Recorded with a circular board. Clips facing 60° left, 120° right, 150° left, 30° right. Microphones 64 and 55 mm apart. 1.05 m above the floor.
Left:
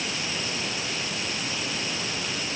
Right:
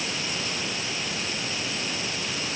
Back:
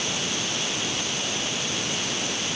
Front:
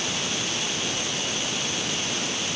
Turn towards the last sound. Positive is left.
No sound to turn to.